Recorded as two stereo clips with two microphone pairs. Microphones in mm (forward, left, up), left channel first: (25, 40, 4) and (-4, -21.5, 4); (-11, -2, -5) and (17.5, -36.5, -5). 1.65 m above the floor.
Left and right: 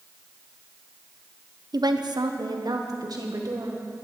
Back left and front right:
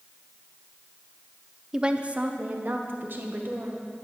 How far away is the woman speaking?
About 0.9 m.